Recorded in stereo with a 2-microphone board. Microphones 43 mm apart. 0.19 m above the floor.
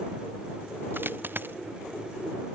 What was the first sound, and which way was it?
A dropped coin, 55° right (ahead or behind).